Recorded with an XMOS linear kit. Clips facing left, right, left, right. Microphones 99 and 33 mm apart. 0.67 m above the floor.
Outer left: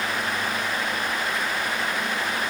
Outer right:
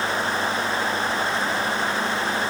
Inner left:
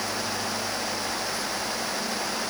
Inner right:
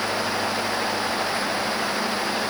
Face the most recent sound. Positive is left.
No sound to turn to.